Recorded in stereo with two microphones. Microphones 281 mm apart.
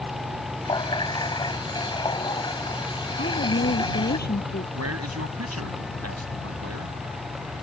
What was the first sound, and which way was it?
A running tap, 15° left (ahead or behind).